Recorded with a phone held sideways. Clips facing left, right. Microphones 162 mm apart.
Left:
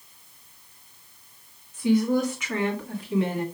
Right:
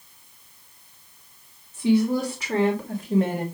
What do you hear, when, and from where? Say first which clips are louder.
1.7 s a woman speaking: right 1 dB; 25° right (ahead or behind), 3 m; by 3.5 s 50° right (ahead or behind), 2 m